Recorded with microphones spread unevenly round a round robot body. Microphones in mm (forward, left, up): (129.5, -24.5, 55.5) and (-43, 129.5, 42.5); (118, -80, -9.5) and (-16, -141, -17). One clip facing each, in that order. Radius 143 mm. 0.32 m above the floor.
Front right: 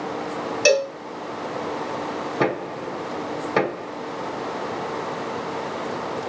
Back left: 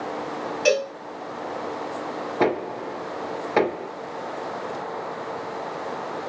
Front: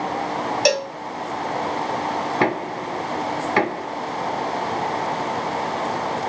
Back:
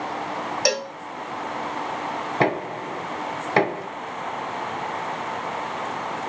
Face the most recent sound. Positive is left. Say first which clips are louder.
# back left 2 dB, back 2 dB
turn(degrees=-115)